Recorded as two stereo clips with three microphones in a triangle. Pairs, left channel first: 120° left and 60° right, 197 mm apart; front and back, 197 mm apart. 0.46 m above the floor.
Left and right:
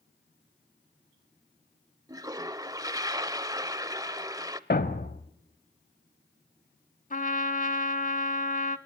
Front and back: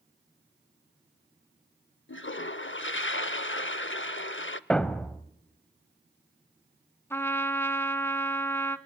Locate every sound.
2.1 s a toilet flushing: 10° left, 0.6 m
4.7 s a thud: 85° left, 0.9 m
7.1 s a trumpet: 80° left, 0.9 m